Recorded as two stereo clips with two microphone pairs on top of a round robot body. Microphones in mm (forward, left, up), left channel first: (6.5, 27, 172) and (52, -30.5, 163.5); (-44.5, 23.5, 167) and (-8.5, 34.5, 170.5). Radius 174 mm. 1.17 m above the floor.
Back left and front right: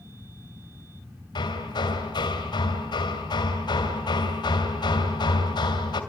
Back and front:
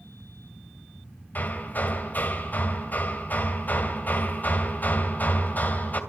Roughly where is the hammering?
Behind left.